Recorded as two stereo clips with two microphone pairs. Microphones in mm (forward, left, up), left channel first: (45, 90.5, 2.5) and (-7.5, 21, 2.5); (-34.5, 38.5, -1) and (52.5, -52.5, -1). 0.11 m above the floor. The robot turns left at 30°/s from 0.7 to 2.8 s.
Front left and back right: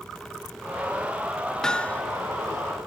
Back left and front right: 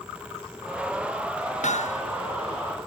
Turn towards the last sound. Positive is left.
turn(degrees=100)